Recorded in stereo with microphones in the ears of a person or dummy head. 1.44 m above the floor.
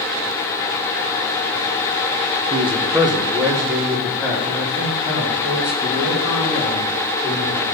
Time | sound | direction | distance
2.5 | a man speaking | 30° right (ahead or behind) | 0.9 m